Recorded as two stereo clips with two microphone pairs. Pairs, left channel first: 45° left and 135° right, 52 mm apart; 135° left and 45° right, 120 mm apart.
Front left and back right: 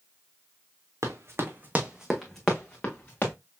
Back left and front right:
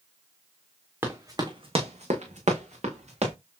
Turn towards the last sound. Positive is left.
turn(degrees=-15)